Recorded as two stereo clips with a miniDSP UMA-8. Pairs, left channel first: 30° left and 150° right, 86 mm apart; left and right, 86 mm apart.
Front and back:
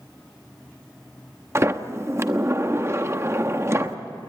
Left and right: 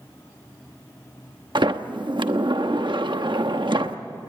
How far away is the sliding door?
About 0.9 m.